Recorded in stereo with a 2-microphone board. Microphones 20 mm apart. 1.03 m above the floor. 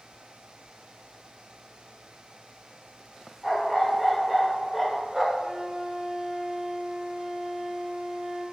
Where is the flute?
45° right (ahead or behind), 0.7 m.